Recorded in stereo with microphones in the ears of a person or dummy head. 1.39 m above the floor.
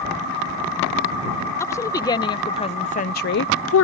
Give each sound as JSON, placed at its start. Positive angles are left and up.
{"t": 1.6, "sound": "a woman speaking", "side_deg": 15}